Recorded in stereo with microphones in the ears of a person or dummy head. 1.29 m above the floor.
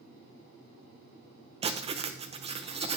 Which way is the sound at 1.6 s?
35° right (ahead or behind).